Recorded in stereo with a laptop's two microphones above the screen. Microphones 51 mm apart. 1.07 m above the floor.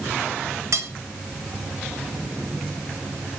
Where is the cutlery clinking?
85° right, 1.4 m.